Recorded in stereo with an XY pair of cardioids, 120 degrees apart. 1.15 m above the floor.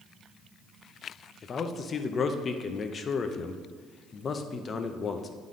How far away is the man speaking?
About 0.6 m.